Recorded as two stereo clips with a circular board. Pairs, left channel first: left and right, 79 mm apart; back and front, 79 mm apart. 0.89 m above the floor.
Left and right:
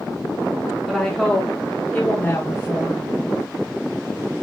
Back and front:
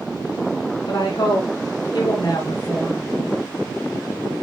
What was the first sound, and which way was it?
A woman speaking, straight behind.